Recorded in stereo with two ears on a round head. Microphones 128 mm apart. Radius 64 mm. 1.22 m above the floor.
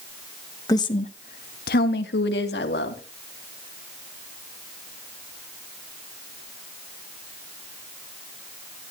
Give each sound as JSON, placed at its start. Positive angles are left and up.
{"t": 0.7, "sound": "a woman speaking", "side_deg": 25, "distance_m": 1.3}